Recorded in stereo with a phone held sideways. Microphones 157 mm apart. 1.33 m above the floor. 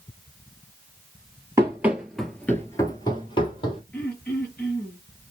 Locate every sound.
1.6 s running footsteps: 15° right (ahead or behind), 1.5 m; by 3.8 s 35° left (ahead or behind), 2 m
3.9 s throat clearing: 10° left (ahead or behind), 2.5 m